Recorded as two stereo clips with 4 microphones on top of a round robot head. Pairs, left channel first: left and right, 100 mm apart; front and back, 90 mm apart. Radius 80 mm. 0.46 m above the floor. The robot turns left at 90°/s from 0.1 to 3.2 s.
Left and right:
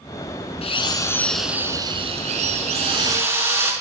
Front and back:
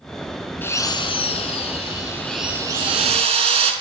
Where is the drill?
70° left, 4.5 m; by 3.7 s 165° right, 4.5 m.